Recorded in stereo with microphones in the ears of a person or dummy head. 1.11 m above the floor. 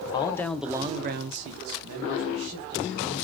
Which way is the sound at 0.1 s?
30° left (ahead or behind).